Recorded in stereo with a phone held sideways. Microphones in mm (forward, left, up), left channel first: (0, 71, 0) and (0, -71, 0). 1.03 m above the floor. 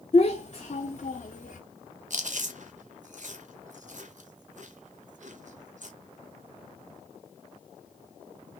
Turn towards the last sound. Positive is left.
turn(degrees=-60)  # may be behind; listen again after turning